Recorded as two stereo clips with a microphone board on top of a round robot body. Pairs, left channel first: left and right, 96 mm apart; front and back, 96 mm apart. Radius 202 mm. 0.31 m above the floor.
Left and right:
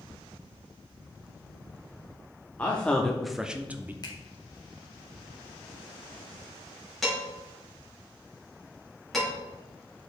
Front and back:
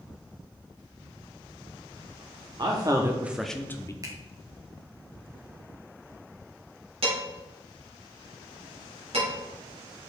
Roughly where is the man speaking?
Behind.